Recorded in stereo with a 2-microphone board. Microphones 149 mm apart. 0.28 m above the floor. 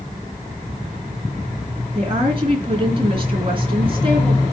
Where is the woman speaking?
35° right (ahead or behind), 3.5 m.